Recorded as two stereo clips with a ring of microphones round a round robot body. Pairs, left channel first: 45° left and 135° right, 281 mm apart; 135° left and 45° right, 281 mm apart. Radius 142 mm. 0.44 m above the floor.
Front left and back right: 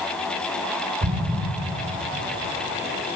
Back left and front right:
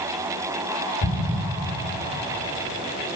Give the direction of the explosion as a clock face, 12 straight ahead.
6 o'clock.